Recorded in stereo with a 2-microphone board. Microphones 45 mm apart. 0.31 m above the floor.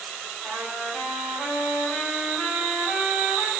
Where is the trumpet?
10° left (ahead or behind), 1.4 m.